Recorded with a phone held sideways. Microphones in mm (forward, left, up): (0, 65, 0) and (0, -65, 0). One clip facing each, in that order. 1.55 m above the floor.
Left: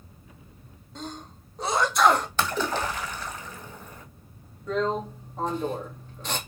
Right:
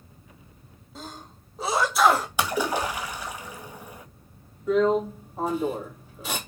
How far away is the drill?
About 3 m.